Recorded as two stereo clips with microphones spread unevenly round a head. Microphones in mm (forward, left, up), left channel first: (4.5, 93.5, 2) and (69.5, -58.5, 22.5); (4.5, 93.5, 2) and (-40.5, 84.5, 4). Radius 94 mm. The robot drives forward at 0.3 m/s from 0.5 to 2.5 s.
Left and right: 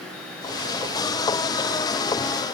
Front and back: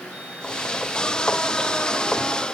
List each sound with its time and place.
Only background noise.